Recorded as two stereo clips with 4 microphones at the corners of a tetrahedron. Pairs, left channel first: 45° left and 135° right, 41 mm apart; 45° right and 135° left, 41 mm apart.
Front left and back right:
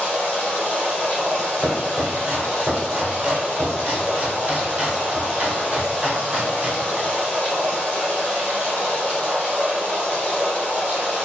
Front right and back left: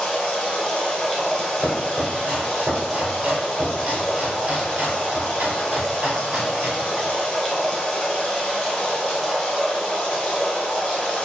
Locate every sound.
0.0 s running water: 20° left, 1.5 m
1.6 s chopping: 175° right, 1.1 m